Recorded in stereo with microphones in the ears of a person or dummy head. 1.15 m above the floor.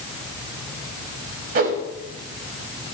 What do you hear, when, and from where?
1.6 s a whoosh: 45° right (ahead or behind), 1.4 m